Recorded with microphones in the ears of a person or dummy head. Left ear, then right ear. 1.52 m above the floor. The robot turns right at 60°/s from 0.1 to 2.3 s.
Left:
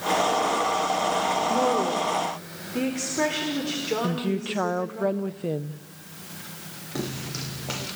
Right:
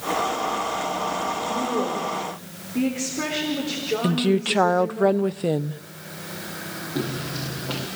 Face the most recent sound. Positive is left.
turn(degrees=60)  # may be behind; listen again after turning